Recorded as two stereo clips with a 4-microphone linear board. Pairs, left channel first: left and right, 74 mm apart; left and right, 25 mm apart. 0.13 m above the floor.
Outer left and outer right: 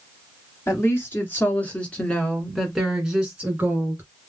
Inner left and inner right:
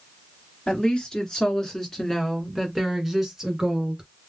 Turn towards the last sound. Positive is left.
turn(degrees=-25)  # may be behind; listen again after turning